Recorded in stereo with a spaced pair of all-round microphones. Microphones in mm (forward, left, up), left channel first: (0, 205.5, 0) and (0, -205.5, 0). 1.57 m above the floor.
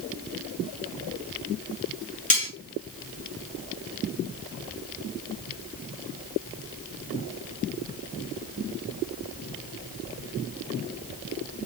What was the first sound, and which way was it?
Cutlery clinking, 20° left (ahead or behind).